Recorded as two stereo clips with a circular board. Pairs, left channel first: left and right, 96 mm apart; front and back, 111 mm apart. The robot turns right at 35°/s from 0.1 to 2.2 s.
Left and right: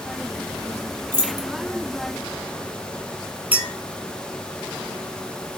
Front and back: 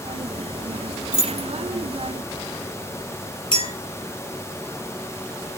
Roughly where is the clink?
Ahead.